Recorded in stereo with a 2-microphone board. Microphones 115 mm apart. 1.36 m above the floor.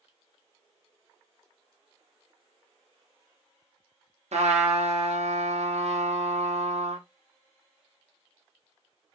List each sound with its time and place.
4.3 s a trumpet: 70° right (ahead or behind), 0.7 m